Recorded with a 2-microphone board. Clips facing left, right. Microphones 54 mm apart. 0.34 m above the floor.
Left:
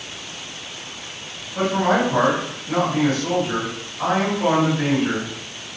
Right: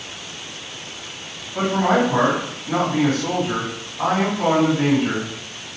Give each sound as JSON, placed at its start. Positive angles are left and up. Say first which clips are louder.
{"t": 1.6, "sound": "a man speaking", "louder": "right 1 dB", "side_deg": -25, "distance_m": 2.0}